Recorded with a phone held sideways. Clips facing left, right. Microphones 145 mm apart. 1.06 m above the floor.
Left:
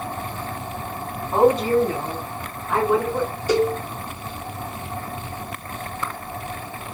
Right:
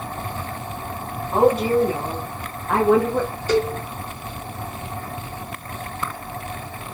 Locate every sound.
1.3 s a woman speaking: centre (ahead or behind), 1.8 m; by 3.3 s 70° right (ahead or behind), 1.8 m
3.5 s a cowbell: 15° left (ahead or behind), 0.6 m